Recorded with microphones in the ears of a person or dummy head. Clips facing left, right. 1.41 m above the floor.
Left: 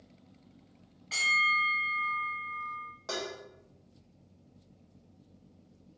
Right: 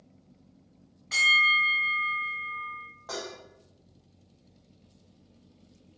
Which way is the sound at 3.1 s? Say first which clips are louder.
Even; 35° left (ahead or behind).